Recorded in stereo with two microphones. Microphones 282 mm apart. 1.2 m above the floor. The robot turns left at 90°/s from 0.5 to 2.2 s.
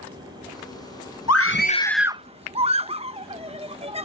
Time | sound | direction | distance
1.3 | a scream | 60° left (ahead or behind) | ?